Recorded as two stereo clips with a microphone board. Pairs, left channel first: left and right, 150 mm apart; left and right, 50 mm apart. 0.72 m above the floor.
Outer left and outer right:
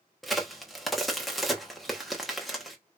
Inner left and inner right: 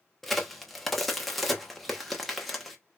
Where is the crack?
Centre (ahead or behind), 1.0 m.